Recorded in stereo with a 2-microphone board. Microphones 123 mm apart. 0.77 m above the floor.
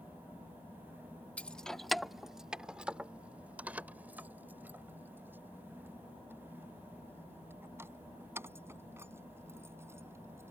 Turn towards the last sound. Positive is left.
turn(degrees=-20)  # may be behind; listen again after turning